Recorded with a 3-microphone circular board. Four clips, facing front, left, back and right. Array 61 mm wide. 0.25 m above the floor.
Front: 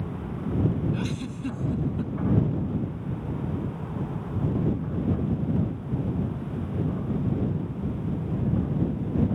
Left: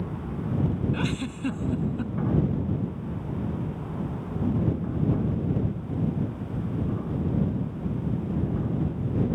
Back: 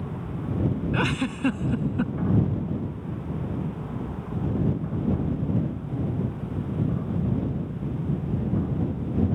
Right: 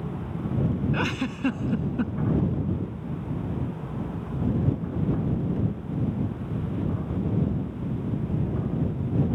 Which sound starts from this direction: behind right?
A giggle, at 0.9 s.